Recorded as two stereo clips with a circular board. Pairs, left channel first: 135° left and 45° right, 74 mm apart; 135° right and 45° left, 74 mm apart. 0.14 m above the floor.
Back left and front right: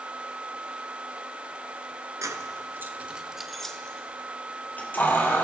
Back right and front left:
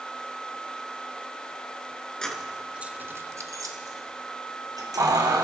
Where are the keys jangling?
60° right, 1.3 m; by 5.4 s 75° left, 3 m.